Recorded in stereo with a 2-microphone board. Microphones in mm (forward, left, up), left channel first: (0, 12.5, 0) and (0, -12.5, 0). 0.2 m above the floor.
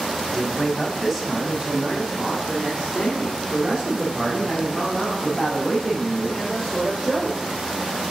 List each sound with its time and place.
0.3 s a man speaking: 10° left (ahead or behind), 1.0 m; by 7.4 s 35° right (ahead or behind), 5 m